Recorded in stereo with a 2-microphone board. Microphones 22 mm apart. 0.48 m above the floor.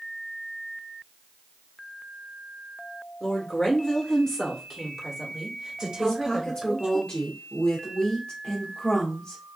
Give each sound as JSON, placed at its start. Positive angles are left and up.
{"t": 3.2, "sound": "a woman speaking", "side_deg": 40, "distance_m": 1.5}
{"t": 6.0, "sound": "a woman speaking", "side_deg": 40, "distance_m": 1.2}